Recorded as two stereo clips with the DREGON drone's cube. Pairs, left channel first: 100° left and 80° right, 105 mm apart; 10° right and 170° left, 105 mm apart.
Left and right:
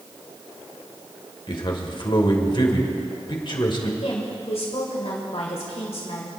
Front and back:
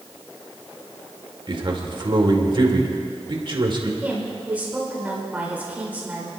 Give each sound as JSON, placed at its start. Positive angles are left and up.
{"t": 1.5, "sound": "a man speaking", "azimuth_deg": 135, "distance_m": 2.0}
{"t": 4.0, "sound": "a woman speaking", "azimuth_deg": 95, "distance_m": 2.5}